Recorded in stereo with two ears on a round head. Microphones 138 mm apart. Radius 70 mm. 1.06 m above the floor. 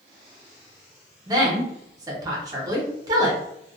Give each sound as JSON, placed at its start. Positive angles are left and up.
{"t": 1.3, "sound": "a woman speaking", "side_deg": -25, "distance_m": 0.8}